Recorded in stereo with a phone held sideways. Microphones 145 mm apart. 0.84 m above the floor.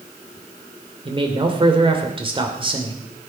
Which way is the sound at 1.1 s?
35° right (ahead or behind).